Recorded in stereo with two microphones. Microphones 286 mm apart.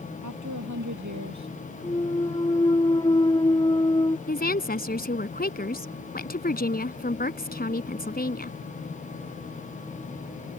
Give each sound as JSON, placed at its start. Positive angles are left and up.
{"t": 0.2, "sound": "a woman speaking", "side_deg": -80}
{"t": 1.8, "sound": "a clunk", "side_deg": 15}
{"t": 4.3, "sound": "a woman speaking", "side_deg": 30}